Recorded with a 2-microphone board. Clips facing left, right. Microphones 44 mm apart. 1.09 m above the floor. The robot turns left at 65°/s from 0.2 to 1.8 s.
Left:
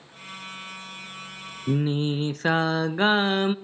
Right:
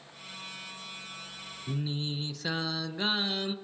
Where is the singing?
50° left (ahead or behind), 0.7 m; by 3.5 s 45° left (ahead or behind), 0.7 m.